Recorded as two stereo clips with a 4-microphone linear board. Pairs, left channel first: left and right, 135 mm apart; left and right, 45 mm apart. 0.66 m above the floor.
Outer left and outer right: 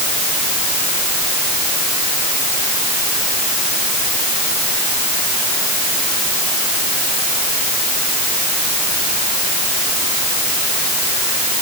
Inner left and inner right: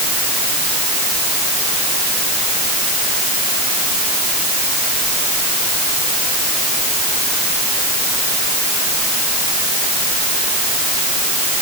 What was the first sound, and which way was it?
Only background noise.